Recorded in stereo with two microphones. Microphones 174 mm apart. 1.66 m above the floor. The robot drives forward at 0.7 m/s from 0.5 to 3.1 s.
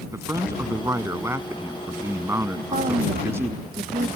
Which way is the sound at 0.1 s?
15° right (ahead or behind).